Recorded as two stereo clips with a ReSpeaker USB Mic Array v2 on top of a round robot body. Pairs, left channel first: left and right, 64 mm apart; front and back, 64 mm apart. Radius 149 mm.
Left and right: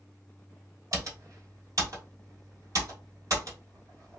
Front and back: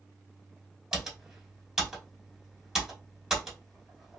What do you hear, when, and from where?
0.9 s typing on a keyboard: 100° right, 2.5 m